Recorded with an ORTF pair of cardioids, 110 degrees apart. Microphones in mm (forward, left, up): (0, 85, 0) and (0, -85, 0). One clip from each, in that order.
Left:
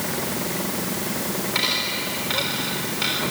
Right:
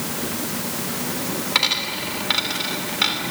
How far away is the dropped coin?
About 3.5 m.